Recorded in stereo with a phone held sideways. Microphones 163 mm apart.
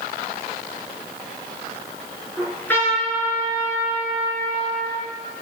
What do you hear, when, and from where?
2.4 s a trumpet: 10° left (ahead or behind), 4.5 m